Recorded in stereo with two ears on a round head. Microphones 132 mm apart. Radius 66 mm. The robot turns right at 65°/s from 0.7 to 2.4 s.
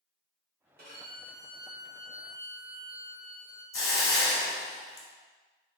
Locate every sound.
0.8 s a violin: 80° right, 1.7 m; by 3.6 s 25° left, 1.7 m
3.7 s a hiss: 20° left (ahead or behind), 0.7 m